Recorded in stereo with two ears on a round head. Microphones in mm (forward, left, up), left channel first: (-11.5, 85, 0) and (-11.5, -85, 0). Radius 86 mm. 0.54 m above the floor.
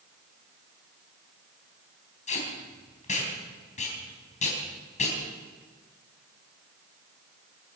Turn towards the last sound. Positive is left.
turn(degrees=40)  # may be behind; listen again after turning